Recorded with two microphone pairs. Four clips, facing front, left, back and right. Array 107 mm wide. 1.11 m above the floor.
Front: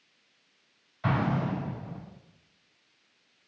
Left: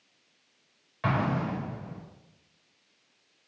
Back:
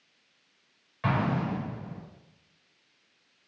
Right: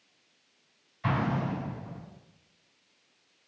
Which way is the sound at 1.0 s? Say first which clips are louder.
Left 1 dB, even; 110° left.